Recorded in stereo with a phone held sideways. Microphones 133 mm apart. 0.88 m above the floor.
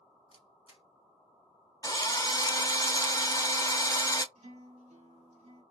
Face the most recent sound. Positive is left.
turn(degrees=-55)  # may be behind; listen again after turning